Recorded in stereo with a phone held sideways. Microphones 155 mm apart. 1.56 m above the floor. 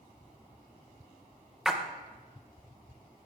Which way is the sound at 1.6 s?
5° right (ahead or behind).